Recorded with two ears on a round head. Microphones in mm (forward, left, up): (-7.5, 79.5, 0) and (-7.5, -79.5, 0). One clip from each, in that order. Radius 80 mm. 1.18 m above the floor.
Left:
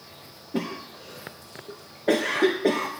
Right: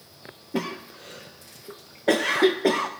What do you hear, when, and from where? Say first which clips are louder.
0.5 s a cough: right 1 dB; 25° right (ahead or behind), 0.6 m